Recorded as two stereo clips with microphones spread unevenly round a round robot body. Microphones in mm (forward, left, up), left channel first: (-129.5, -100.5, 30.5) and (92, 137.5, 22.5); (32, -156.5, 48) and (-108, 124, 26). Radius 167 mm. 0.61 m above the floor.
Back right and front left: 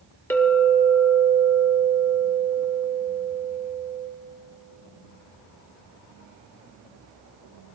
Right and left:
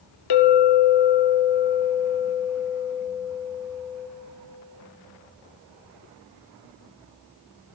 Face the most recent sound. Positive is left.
turn(degrees=-50)